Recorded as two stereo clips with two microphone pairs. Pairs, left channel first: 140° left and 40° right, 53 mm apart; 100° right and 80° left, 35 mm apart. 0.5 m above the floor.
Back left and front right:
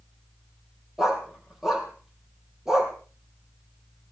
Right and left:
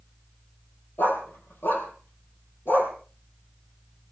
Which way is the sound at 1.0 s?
125° right.